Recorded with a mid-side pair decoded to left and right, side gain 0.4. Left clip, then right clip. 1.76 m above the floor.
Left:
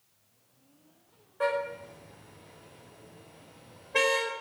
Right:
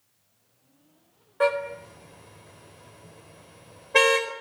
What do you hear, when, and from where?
1.4 s a car horn: 60° right, 4 m